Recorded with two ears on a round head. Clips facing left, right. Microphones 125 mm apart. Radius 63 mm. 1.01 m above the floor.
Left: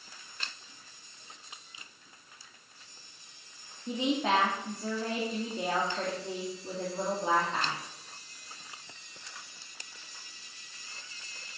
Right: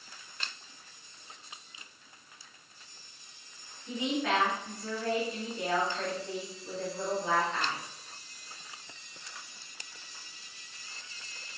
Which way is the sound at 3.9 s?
25° left (ahead or behind).